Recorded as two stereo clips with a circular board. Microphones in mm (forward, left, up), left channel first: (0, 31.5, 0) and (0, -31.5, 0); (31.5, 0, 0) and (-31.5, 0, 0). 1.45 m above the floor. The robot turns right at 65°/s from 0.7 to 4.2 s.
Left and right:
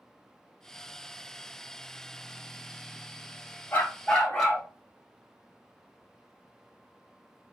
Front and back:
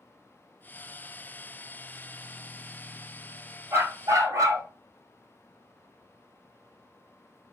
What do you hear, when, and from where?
3.7 s a dog barking: 140° left, 2.0 m; by 4.7 s 170° left, 2.0 m